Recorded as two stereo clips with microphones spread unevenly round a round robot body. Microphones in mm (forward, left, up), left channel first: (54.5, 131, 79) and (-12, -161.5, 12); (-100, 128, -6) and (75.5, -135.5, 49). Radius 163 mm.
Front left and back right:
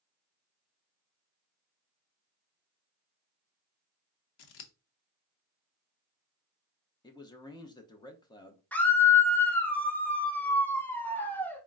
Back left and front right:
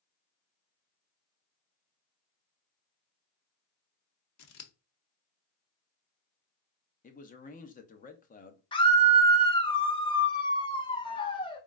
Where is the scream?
175° left, 0.8 m.